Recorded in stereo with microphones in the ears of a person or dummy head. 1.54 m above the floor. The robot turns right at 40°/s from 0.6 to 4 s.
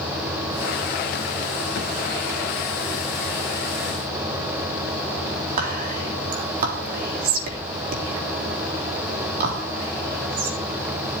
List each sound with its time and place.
5.6 s whispering: 45° right (ahead or behind), 3.5 m